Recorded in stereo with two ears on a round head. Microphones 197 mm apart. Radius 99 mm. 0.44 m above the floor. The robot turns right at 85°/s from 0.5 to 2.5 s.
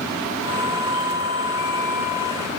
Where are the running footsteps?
I don't hear running footsteps.